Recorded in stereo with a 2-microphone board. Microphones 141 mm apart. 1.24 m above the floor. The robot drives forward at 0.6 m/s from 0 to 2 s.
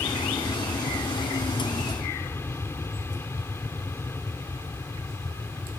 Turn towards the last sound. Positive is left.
turn(degrees=15)  # may be behind; listen again after turning